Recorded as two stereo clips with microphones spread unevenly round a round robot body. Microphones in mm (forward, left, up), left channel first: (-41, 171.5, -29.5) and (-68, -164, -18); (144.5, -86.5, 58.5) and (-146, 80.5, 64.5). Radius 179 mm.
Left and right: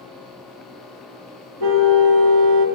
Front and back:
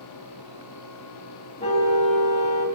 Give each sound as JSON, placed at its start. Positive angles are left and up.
{"t": 1.6, "sound": "a car horn", "azimuth_deg": -100, "distance_m": 2.0}